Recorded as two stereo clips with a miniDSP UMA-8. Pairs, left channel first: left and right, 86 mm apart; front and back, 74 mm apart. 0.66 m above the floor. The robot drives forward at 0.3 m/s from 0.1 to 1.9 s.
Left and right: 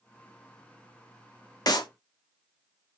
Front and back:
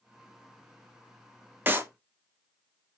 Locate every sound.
1.7 s a clap: 120° left, 0.8 m; by 1.9 s 125° left, 0.9 m